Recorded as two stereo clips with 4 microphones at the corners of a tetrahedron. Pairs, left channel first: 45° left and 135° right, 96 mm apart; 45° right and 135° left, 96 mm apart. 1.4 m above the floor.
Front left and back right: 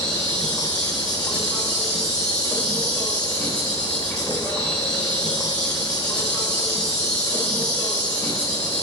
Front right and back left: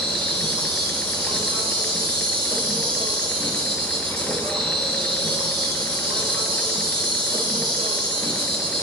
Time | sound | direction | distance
0.0 | an insect | 125° left | 2.5 m